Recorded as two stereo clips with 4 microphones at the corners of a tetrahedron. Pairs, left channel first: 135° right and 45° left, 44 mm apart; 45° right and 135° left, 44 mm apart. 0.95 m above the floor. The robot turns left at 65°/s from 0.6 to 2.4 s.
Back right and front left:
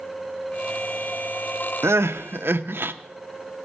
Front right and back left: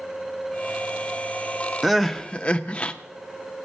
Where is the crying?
50° left, 0.6 m; by 2.9 s 15° left, 0.6 m.